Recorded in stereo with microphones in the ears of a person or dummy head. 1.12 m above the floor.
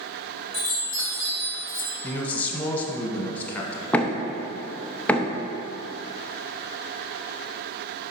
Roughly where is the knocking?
Centre.